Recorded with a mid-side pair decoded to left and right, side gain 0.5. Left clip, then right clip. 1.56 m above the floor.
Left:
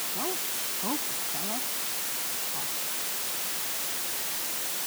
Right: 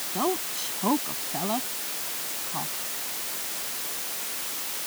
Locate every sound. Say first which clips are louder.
0.1 s a woman speaking: right 9 dB; 50° right; by 2.7 s 55° right